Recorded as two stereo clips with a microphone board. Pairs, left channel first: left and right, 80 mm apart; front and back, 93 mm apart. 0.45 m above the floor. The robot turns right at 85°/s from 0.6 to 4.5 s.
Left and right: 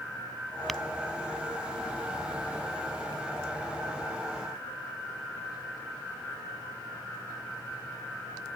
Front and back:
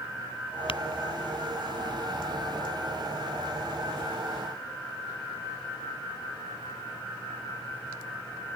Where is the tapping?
Straight ahead; by 0.8 s 10° left.